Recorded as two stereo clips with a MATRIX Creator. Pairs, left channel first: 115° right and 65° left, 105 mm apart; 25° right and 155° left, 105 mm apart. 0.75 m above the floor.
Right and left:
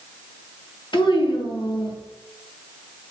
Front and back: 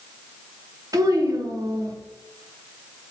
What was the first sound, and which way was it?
A child speaking, 150° right.